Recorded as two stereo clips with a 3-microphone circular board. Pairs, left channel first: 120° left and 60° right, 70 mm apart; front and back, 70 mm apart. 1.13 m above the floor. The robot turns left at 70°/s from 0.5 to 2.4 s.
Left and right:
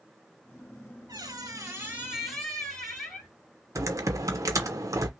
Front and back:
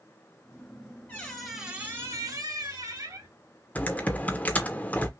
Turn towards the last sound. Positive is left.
turn(degrees=-60)